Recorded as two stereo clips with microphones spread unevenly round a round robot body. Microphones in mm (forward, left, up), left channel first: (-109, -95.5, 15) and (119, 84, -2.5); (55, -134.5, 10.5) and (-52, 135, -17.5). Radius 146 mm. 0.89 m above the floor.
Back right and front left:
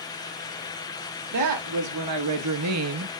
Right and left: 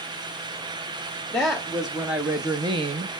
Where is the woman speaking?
20° left, 1.8 m; by 3.1 s 60° left, 0.8 m.